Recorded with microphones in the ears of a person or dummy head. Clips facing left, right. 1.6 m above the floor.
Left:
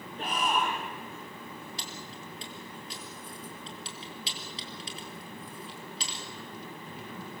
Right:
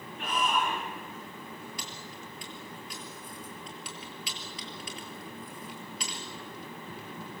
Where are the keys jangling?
35° left (ahead or behind), 3.5 m.